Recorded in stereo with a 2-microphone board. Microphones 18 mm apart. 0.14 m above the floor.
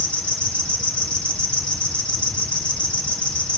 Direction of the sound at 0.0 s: 75° left (ahead or behind).